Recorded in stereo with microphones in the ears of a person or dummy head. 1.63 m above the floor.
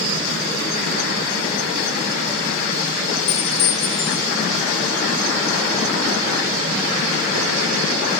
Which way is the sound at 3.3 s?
80° left.